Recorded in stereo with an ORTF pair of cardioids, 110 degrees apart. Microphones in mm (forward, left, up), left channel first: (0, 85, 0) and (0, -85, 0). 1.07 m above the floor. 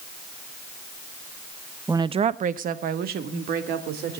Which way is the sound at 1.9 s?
15° right.